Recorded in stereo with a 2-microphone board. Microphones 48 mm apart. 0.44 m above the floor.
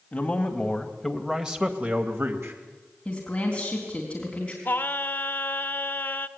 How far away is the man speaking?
About 2.5 m.